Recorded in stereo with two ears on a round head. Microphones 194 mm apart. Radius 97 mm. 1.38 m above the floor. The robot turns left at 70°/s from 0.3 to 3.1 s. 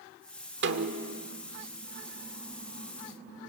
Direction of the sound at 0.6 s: 85° right.